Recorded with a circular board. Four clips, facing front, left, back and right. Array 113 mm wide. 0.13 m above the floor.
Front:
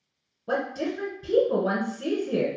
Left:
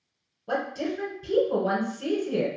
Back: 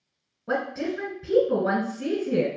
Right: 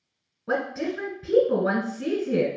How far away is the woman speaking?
About 1.5 m.